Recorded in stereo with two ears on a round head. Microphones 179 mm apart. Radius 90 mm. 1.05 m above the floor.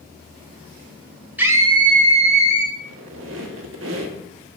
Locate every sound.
1.4 s a scream: 10° right (ahead or behind), 1.0 m; by 2.7 s 35° right (ahead or behind), 2 m
2.8 s a squeak: 65° right (ahead or behind), 1.3 m